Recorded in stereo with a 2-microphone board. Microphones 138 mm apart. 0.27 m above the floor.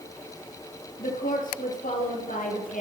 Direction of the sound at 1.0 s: 75° left (ahead or behind).